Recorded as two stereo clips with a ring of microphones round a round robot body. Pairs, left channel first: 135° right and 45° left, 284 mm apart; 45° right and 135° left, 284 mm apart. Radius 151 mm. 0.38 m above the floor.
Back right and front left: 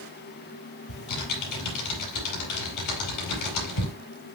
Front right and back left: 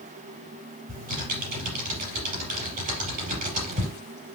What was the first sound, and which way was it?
Typing on a keyboard, 160° right.